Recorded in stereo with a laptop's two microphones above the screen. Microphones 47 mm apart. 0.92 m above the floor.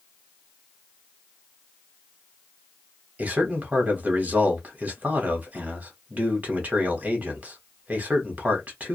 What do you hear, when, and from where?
3.2 s a man speaking: 35° right (ahead or behind), 1.1 m